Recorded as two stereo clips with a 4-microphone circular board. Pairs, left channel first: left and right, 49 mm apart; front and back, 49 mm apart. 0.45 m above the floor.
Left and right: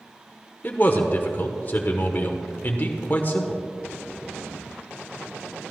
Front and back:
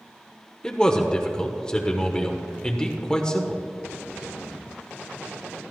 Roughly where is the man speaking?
Ahead left.